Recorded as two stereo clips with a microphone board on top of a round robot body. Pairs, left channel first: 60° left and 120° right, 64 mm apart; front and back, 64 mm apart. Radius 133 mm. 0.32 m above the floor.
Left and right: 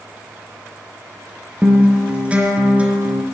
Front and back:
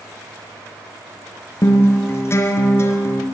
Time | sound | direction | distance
1.6 | a guitar | 50° right | 4 m